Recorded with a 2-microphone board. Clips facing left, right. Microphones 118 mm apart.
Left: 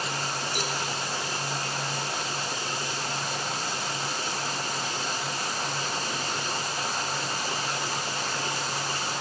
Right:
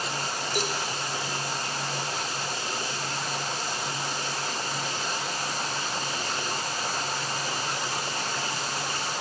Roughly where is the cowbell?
Right.